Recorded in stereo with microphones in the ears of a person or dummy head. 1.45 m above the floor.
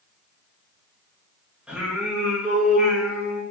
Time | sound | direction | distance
1.7 | singing | 5° right (ahead or behind) | 2.5 m